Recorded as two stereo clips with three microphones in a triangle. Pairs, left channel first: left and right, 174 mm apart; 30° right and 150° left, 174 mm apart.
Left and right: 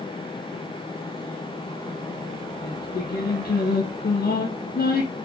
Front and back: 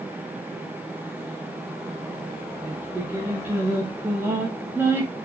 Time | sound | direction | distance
2.6 | singing | 70° left | 2 m